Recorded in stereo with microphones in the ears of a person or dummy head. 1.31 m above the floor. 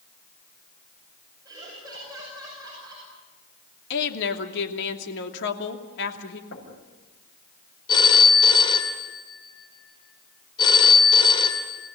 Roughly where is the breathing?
No breathing in this recording.